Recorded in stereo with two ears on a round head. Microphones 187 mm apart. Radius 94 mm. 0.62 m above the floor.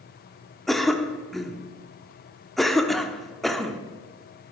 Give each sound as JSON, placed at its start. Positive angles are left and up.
{"t": 0.7, "sound": "a cough", "side_deg": 0, "distance_m": 1.1}